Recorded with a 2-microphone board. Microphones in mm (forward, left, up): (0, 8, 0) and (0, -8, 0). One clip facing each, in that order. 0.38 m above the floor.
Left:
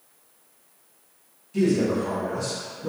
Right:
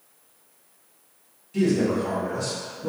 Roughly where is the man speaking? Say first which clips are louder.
Even; centre.